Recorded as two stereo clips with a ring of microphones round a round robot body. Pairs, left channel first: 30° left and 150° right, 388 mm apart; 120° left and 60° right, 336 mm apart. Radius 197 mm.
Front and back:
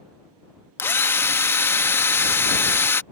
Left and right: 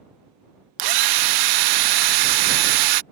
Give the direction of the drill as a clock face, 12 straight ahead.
2 o'clock.